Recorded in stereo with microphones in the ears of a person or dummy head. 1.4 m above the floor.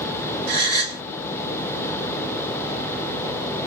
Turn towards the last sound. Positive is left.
turn(degrees=-60)  # may be behind; listen again after turning